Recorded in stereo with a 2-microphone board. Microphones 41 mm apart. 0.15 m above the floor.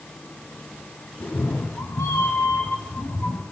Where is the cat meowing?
85° left, 2.5 m; by 3.4 s 75° left (ahead or behind), 3.5 m.